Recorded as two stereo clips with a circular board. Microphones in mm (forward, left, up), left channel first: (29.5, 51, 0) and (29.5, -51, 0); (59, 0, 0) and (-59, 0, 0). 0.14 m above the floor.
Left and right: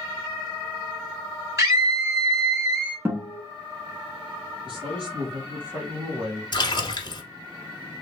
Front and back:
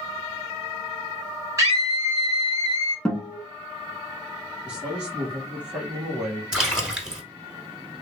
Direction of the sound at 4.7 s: 100° right.